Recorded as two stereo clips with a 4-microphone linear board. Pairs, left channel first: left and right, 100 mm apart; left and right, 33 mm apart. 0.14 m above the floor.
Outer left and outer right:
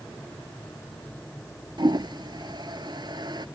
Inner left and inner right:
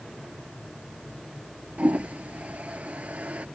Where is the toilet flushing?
50° right (ahead or behind).